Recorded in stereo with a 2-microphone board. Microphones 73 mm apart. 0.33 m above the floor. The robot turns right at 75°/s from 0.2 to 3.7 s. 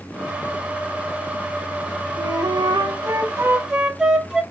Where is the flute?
125° right, 0.6 m; by 4.4 s 10° right, 0.6 m.